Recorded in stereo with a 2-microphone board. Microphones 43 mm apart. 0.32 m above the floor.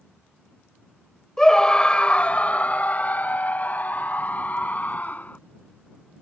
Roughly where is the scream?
Centre.